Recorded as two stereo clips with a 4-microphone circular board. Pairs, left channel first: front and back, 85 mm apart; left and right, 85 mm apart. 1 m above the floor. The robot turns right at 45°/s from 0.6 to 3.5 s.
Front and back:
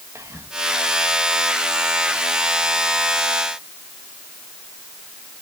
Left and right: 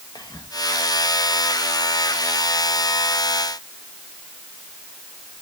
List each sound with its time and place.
0.1 s whispering: 125° left, 1.2 m